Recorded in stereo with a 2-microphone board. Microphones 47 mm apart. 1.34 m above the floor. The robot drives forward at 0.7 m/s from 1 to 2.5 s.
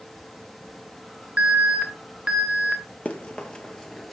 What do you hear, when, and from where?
1.4 s an alarm: 30° right (ahead or behind), 1.4 m; by 2.8 s 20° right (ahead or behind), 2 m
3.0 s running footsteps: 30° left (ahead or behind), 1.6 m; by 4.1 s centre (ahead or behind), 1.3 m